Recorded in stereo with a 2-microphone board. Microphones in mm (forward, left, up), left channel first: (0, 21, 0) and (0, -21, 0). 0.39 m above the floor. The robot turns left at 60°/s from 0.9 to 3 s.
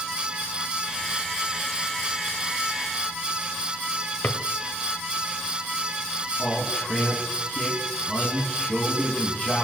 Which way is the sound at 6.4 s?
20° left (ahead or behind).